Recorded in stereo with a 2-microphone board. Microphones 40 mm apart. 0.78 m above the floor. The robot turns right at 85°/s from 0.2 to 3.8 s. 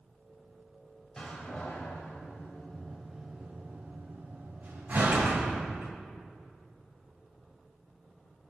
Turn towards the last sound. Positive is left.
turn(degrees=-55)  # may be behind; listen again after turning